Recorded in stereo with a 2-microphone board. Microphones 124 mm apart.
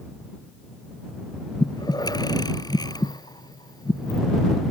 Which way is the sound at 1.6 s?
35° left (ahead or behind).